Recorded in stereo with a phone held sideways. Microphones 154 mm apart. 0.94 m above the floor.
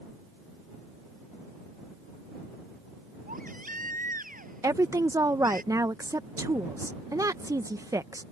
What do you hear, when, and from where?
3.3 s a baby crying: 65° right (ahead or behind)
4.6 s a woman speaking: 20° right (ahead or behind)